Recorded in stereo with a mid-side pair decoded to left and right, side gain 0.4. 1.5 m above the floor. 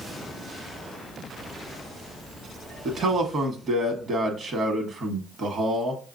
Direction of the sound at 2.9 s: 60° right.